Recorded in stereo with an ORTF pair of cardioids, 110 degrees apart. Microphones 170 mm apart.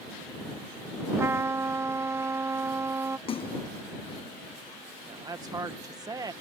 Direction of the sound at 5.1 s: 20° right.